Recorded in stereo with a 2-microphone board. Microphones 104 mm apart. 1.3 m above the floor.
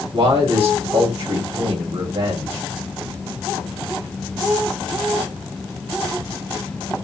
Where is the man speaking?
65° right (ahead or behind), 2.5 m.